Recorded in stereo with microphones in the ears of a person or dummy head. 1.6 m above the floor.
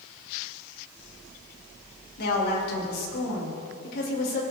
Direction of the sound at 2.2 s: 55° left (ahead or behind).